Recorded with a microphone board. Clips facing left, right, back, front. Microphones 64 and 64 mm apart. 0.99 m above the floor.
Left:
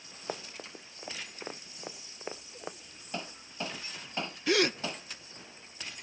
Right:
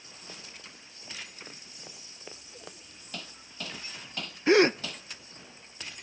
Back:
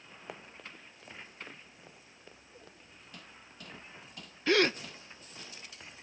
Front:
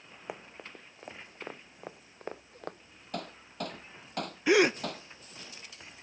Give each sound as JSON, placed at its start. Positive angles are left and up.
{"t": 0.3, "sound": "running footsteps", "azimuth_deg": 70}
{"t": 3.1, "sound": "hammering", "azimuth_deg": 25}
{"t": 4.5, "sound": "a gasp", "azimuth_deg": -65}